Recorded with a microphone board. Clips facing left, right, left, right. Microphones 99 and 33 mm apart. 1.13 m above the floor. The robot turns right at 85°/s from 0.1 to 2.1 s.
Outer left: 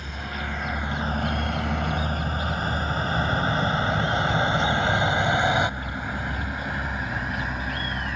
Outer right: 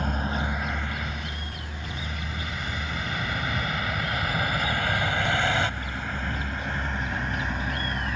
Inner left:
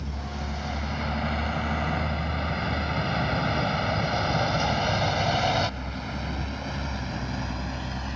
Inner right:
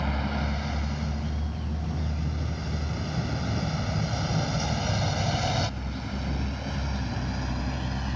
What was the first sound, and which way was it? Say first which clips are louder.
A vehicle: outer right 5 dB, inner right 5 dB; 55° right (ahead or behind).